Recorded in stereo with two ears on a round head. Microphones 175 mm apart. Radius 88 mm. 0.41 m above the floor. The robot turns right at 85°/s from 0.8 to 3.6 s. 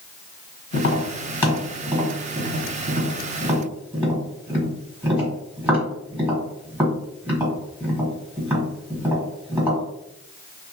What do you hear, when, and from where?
0.7 s tapping: 65° left (ahead or behind), 1.4 m; by 9.8 s 10° right (ahead or behind), 1.4 m